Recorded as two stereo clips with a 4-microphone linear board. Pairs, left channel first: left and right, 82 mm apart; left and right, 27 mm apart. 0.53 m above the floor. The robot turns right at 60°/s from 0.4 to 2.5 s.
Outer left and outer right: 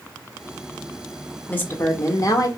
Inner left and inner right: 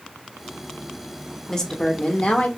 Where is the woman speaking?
30° left, 1.0 m; by 2.5 s 90° left, 1.0 m.